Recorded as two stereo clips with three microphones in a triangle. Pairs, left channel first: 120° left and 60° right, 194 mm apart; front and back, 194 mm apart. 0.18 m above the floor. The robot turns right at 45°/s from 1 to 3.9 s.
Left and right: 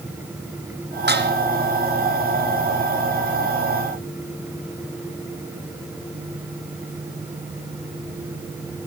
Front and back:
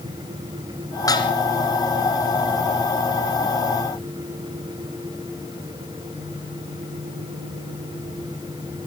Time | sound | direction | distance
1.1 | dishes clattering | 70° right | 1.9 m